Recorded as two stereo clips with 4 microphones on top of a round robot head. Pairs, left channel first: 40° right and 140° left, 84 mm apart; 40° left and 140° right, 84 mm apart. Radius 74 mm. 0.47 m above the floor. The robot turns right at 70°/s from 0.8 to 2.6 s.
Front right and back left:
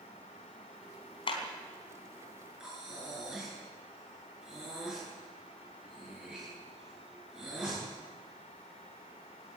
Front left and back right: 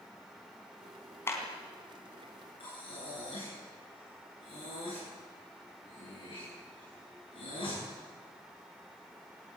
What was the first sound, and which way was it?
A clap, 20° right.